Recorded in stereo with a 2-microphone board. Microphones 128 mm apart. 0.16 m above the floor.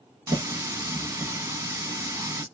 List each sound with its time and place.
0.3 s a running tap: 20° right (ahead or behind), 0.7 m